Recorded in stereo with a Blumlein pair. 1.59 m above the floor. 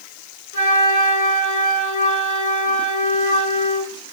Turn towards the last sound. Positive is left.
turn(degrees=65)